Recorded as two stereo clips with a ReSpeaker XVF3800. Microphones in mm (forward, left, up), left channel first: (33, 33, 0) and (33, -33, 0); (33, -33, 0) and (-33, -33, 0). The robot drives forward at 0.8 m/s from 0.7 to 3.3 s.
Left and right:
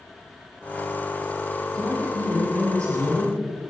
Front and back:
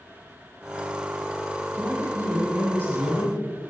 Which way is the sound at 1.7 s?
125° right.